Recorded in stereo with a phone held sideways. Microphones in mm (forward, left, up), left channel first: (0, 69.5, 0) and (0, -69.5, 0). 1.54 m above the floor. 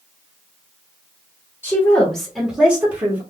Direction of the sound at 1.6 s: 20° left (ahead or behind).